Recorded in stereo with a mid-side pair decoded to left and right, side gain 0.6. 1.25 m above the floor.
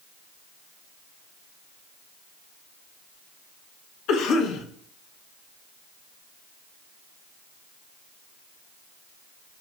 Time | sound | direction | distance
4.1 | a cough | 60° left | 1.0 m